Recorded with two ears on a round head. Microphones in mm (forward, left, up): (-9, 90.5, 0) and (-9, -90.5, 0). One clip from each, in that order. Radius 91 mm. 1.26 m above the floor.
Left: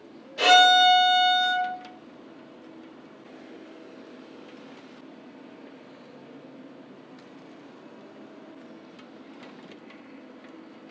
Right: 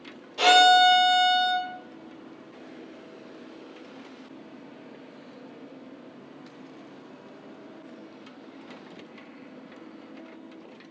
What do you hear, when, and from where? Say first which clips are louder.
0.4 s a violin: even; 5° left (ahead or behind), 1.9 m